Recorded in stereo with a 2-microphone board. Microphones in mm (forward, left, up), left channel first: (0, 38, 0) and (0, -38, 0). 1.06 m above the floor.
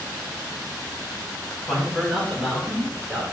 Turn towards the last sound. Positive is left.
turn(degrees=-10)  # may be behind; listen again after turning